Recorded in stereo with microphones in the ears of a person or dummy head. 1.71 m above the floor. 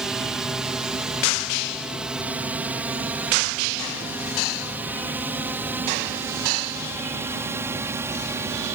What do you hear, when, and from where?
0.0 s a drone: centre (ahead or behind); by 8.7 s 10° right (ahead or behind)